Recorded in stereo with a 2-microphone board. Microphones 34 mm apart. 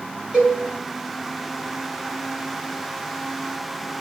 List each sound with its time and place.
0.3 s a cowbell: 40° right (ahead or behind), 5 m